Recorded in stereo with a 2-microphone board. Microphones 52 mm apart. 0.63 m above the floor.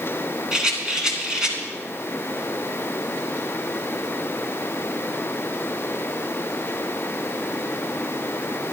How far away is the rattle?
About 2.5 m.